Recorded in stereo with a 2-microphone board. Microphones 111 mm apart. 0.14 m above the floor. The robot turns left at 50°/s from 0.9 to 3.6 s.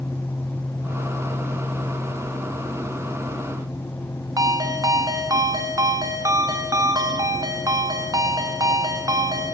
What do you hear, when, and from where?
4.4 s a ringtone: 35° right (ahead or behind), 0.9 m